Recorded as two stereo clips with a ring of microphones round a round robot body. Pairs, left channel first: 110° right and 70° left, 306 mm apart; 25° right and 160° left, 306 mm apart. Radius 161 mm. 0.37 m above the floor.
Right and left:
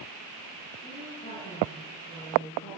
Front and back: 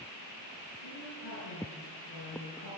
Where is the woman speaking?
35° right, 7.5 m.